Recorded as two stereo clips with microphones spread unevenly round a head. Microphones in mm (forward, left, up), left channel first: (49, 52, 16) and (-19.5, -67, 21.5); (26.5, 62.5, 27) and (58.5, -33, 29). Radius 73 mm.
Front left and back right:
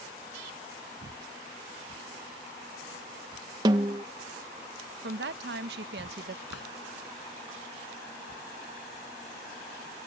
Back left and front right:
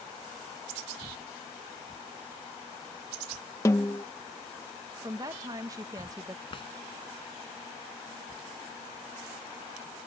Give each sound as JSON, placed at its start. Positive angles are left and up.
{"t": 3.6, "sound": "a snare drum", "azimuth_deg": 175}
{"t": 5.0, "sound": "a woman speaking", "azimuth_deg": -135}
{"t": 6.5, "sound": "a drawer", "azimuth_deg": 75}